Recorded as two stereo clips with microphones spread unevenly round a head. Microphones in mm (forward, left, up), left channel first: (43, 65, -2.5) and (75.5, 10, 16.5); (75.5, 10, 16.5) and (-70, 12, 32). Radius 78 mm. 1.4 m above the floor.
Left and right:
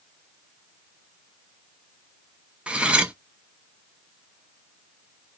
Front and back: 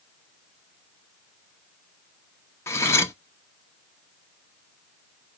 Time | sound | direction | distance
2.7 | cutlery clinking | 70° right | 0.8 m